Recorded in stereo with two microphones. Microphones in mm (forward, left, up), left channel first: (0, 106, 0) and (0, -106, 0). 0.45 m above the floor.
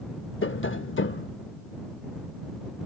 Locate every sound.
0.4 s tapping: 70° left (ahead or behind)